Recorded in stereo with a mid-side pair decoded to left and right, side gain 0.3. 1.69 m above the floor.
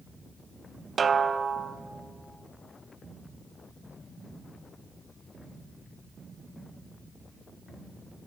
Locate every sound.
1.0 s a snare drum: 55° right, 0.7 m